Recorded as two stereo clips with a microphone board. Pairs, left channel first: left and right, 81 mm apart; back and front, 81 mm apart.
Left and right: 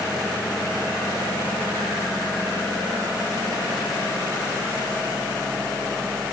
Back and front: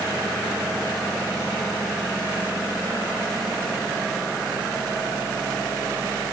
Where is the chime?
I don't hear a chime.